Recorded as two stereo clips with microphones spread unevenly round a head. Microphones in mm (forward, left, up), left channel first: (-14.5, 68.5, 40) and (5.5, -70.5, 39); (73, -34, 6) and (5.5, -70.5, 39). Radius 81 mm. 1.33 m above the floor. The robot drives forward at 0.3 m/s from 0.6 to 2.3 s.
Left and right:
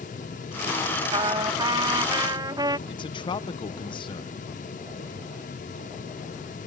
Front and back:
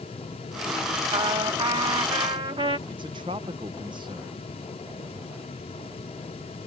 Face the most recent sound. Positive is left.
turn(degrees=155)